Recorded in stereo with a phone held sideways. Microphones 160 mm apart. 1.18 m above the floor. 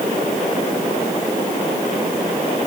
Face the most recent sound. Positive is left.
No sound to turn to.